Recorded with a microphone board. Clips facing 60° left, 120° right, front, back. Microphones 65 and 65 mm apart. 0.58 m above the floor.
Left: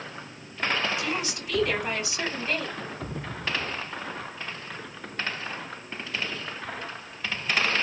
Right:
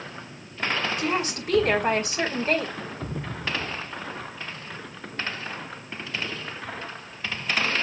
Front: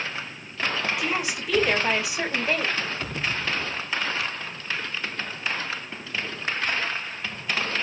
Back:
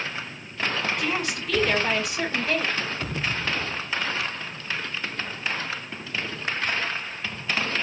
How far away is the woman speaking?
About 4 m.